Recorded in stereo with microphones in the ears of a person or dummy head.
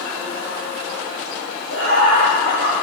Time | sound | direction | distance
1.7 | laughter | 70° right (ahead or behind) | 2.5 m